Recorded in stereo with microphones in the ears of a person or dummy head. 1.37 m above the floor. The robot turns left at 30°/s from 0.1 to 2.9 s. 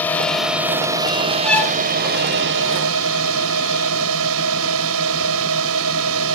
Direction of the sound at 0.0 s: 10° left.